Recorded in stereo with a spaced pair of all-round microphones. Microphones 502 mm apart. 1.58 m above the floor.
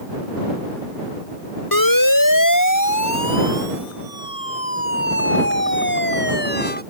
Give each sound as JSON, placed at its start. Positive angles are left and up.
{"t": 1.7, "sound": "a siren", "side_deg": 40}